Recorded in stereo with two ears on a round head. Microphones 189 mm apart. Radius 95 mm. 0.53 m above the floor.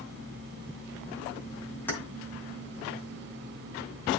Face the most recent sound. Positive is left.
turn(degrees=10)  # may be behind; listen again after turning